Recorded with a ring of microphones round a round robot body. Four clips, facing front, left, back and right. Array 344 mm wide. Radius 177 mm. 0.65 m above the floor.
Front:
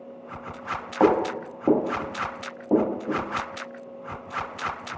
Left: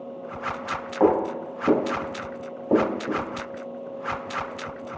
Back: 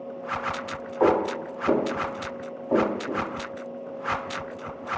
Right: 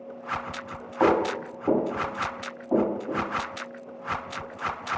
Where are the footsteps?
Straight ahead, 1.6 m; by 3.2 s 60° left, 2.0 m.